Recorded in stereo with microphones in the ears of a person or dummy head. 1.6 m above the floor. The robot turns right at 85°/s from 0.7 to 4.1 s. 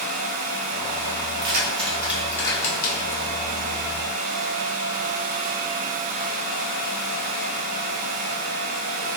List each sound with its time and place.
1.3 s keys jangling: 75° right (ahead or behind), 3 m; by 3.3 s 80° left, 3 m